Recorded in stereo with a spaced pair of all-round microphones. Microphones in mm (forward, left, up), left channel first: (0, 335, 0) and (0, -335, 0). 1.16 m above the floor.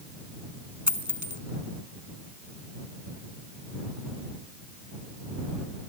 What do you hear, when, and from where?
0.9 s a dropped coin: 25° right (ahead or behind)